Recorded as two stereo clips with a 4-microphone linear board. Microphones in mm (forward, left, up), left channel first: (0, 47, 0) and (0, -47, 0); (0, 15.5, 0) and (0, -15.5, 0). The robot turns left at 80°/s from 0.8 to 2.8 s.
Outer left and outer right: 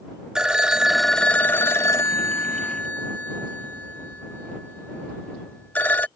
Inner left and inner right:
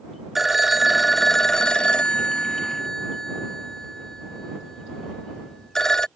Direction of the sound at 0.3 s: 165° right.